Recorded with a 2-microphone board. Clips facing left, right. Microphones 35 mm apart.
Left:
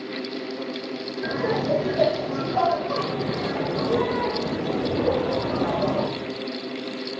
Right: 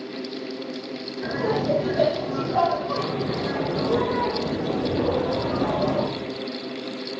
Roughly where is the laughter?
Right.